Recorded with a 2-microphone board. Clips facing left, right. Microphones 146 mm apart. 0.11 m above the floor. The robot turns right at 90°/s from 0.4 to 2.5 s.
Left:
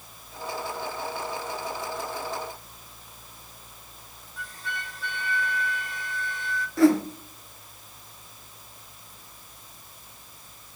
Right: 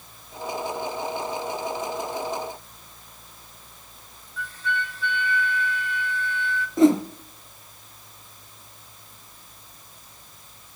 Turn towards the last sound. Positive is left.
turn(degrees=-20)  # may be behind; listen again after turning